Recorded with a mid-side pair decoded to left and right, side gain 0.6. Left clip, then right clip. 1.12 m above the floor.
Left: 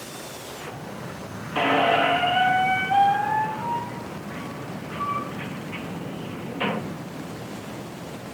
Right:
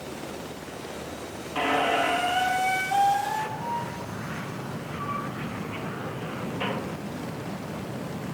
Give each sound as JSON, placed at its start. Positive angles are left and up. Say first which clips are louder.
{"t": 1.6, "sound": "a squeak", "louder": "left 4 dB", "azimuth_deg": 25, "distance_m": 1.2}